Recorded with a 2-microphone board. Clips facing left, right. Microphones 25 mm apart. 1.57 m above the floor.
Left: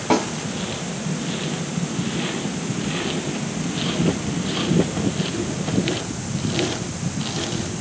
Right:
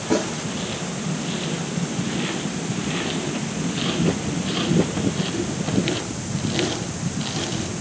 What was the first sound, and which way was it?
A snare drum, 65° left (ahead or behind).